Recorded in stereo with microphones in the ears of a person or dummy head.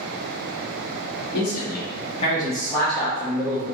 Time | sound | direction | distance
1.3 | a man speaking | 50° left (ahead or behind) | 1.3 m